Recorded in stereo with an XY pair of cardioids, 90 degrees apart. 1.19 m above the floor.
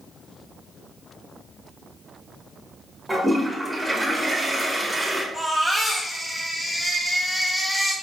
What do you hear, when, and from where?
3.1 s a toilet flushing: 10° right, 1.7 m
5.3 s a baby crying: 20° left, 1.8 m